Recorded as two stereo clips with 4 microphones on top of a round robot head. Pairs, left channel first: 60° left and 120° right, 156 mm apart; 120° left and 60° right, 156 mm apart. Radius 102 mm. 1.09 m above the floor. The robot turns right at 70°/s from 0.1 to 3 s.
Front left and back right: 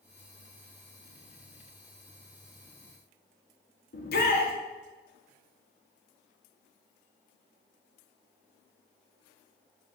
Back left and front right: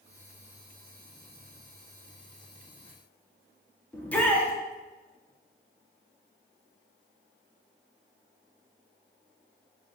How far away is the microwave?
I don't hear a microwave.